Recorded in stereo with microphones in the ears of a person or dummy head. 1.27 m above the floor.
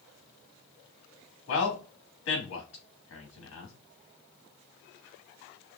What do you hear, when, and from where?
1.5 s a man speaking: 80° left, 1.7 m